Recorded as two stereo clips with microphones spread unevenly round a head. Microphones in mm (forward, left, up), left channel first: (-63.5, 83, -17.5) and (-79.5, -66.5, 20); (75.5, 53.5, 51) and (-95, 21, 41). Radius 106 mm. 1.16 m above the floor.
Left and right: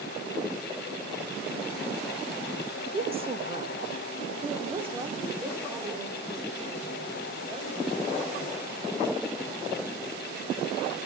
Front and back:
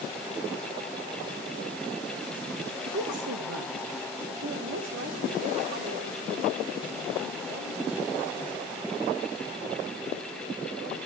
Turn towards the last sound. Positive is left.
turn(degrees=-150)